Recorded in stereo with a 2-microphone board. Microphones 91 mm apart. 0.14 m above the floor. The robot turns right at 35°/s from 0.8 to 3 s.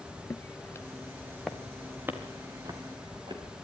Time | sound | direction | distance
0.3 | footsteps | 25° left (ahead or behind) | 0.7 m